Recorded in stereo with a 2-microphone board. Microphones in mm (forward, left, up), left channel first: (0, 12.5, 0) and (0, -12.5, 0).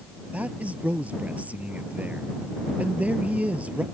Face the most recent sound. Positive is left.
turn(degrees=-60)  # may be behind; listen again after turning